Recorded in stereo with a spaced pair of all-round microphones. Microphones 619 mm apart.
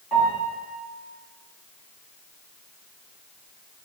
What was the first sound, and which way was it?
A piano, 35° left (ahead or behind).